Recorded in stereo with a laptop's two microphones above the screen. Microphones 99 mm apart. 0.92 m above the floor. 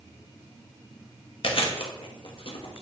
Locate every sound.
1.4 s chewing: 60° left (ahead or behind), 1.1 m